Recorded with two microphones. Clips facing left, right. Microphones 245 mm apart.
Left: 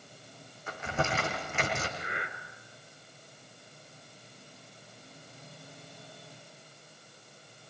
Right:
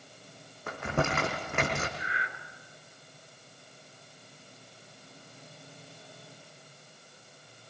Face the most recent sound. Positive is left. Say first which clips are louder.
# left 2 dB
turn(degrees=55)  # may be behind; listen again after turning